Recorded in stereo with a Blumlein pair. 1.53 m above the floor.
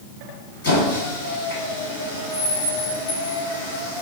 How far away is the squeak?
About 1.5 m.